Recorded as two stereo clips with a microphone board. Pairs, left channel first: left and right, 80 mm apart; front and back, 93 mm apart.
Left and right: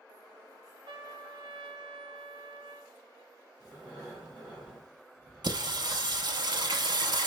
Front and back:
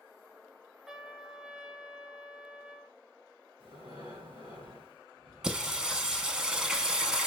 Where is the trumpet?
95° right, 0.5 m.